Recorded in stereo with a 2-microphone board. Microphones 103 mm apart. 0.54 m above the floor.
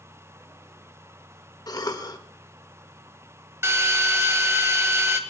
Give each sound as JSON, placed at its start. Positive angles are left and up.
{"t": 1.7, "sound": "a cough", "side_deg": 40, "distance_m": 1.6}
{"t": 3.6, "sound": "a drill", "side_deg": -25, "distance_m": 1.8}